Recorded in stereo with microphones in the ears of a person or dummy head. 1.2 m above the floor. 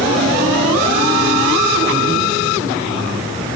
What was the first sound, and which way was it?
Only background noise.